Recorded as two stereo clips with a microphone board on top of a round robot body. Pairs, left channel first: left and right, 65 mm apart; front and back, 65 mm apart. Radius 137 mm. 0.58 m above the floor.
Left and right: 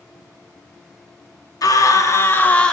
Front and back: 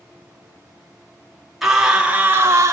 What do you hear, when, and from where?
1.6 s a scream: 95° left, 1.5 m; by 2.7 s 165° left, 1.0 m